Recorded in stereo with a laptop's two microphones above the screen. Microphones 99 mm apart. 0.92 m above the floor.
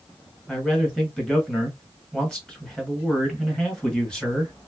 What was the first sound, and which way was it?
A man speaking, 5° left (ahead or behind).